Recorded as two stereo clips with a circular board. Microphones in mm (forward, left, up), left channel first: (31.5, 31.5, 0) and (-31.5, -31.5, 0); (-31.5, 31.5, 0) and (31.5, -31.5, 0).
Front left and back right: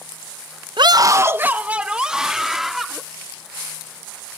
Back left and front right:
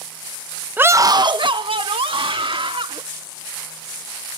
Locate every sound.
0.8 s a scream: 115° right; by 3.0 s 50° right